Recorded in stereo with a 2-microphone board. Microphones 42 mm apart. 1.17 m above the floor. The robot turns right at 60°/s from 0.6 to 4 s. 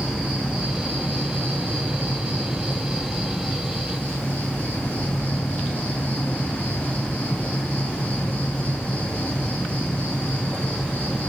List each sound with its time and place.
0.0 s an insect: 165° right, 1.8 m; by 11.3 s 40° left, 1.8 m